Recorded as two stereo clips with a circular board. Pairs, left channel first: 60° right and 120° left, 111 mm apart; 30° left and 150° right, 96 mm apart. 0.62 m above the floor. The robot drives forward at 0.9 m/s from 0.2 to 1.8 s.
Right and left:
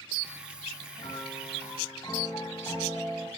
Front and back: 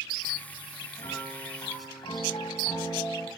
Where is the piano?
5° right, 9 m.